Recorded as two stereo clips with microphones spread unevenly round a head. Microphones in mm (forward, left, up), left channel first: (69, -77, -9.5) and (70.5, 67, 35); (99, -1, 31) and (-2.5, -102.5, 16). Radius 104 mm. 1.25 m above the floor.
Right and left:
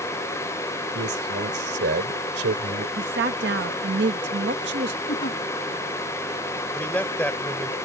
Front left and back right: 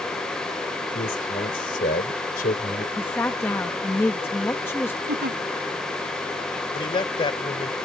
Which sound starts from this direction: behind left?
A woman speaking, at 3.0 s.